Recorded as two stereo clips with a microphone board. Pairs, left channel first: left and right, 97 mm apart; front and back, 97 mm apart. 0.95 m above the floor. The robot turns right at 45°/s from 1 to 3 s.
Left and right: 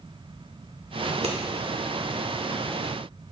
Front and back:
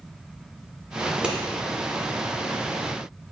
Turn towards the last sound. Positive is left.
turn(degrees=-20)